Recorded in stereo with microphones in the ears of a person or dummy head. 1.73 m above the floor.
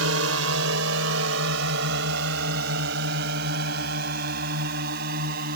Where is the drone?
75° right (ahead or behind); by 5.6 s 55° right (ahead or behind).